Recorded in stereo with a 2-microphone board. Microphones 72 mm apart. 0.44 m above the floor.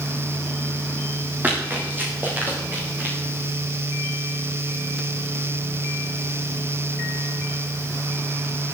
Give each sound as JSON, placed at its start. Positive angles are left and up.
{"t": 1.4, "sound": "running footsteps", "side_deg": -25, "distance_m": 6.5}